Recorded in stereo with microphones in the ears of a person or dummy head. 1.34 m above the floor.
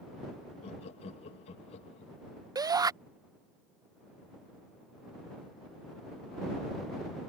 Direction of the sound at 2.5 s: 20° right (ahead or behind).